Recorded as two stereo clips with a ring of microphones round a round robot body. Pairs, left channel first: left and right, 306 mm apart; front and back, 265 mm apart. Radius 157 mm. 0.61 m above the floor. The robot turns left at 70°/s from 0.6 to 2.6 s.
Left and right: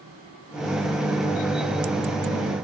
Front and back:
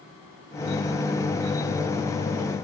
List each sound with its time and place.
Only background noise.